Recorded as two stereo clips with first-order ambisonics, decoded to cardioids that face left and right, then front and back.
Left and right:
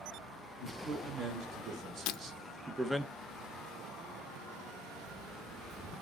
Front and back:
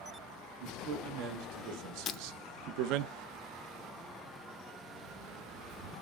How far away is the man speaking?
About 4 m.